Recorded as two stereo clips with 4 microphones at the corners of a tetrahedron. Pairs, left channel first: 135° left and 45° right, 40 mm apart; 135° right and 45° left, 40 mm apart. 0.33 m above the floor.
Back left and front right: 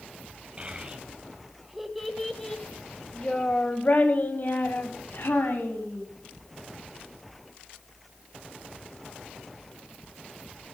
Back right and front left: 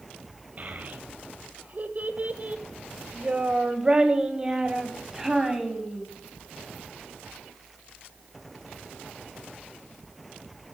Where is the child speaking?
10° left, 1.5 m; by 6.0 s 125° left, 2.5 m.